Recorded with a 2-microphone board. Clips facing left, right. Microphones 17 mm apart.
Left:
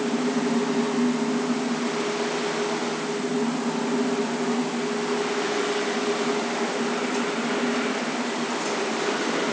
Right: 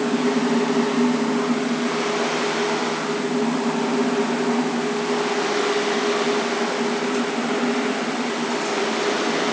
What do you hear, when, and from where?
Only background noise.